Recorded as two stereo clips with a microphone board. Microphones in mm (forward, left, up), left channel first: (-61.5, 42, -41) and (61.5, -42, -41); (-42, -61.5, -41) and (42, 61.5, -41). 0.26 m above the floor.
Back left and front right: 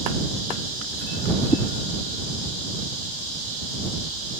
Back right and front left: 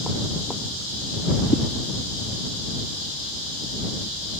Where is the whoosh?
150° right.